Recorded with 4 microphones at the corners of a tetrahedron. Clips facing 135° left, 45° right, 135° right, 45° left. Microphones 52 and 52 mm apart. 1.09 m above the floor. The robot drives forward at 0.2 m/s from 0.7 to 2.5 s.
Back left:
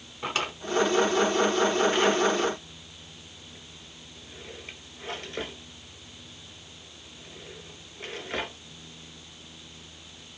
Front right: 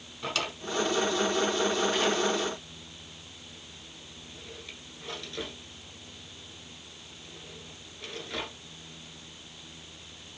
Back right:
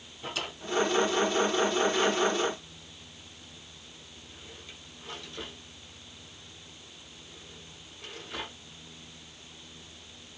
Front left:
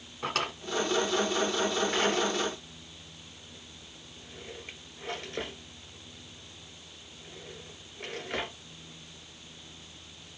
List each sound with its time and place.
0.2 s a drawer: 75° left, 1.7 m; by 8.5 s 85° left, 1.6 m